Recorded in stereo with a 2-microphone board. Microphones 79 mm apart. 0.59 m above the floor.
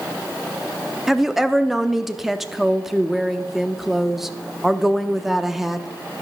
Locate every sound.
1.1 s a woman speaking: 5° right (ahead or behind), 0.7 m